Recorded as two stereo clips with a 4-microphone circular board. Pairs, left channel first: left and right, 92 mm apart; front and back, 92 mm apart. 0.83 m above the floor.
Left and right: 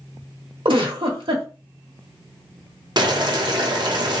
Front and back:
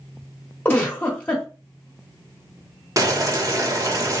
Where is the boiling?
130° right, 0.8 m.